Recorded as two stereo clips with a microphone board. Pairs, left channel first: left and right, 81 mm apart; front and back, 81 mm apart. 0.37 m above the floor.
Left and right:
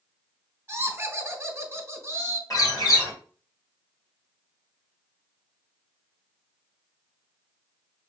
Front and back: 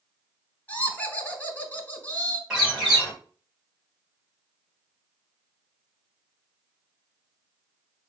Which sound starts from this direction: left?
A bird, at 2.5 s.